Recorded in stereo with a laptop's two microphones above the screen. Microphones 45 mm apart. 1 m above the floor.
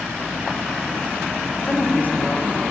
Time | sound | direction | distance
1.6 | a woman speaking | 35° left (ahead or behind) | 0.6 m